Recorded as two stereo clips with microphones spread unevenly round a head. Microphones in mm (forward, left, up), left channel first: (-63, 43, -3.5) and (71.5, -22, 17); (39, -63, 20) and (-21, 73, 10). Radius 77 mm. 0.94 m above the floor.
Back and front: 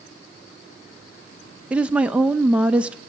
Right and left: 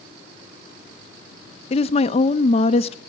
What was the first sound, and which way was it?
A woman speaking, 115° right.